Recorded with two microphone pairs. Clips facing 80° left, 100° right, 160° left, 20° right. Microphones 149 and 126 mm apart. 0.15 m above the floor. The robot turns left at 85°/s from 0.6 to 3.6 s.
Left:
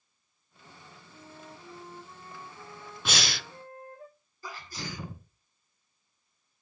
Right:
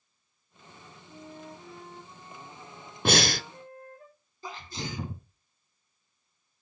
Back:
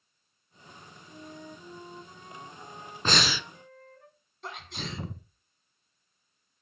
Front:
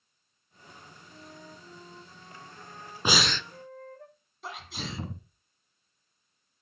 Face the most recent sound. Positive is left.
turn(degrees=-105)